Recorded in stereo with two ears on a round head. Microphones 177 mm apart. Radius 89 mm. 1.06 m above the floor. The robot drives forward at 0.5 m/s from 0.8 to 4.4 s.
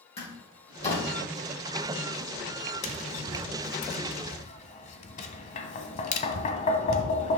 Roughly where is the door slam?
Left.